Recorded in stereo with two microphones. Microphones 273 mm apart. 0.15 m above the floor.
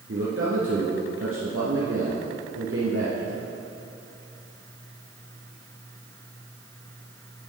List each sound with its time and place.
0.1 s a man speaking: 60° right (ahead or behind), 1.9 m